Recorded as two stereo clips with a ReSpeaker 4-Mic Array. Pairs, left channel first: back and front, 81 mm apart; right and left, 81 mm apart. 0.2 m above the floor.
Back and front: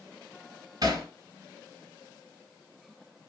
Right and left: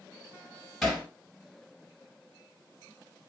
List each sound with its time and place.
0.8 s hammering: straight ahead, 1.5 m